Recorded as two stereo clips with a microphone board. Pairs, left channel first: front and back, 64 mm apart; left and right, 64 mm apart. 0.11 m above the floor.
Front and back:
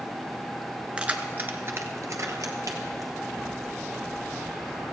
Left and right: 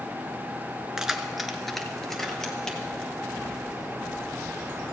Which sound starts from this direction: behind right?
Keys jangling, at 1.0 s.